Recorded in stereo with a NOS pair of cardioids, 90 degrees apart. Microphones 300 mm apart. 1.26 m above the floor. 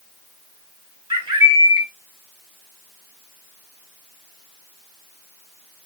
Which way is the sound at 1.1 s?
15° right.